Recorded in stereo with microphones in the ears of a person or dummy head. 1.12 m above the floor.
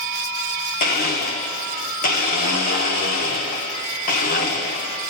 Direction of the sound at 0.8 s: 45° left (ahead or behind).